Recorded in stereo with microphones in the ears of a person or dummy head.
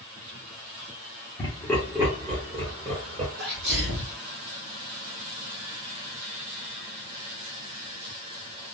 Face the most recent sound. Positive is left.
turn(degrees=-55)  # may be behind; listen again after turning